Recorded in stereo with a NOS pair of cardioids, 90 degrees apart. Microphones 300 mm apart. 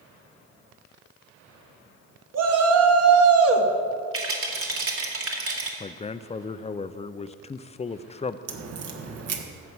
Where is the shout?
55° right, 2.5 m; by 3.7 s 45° right, 1.8 m.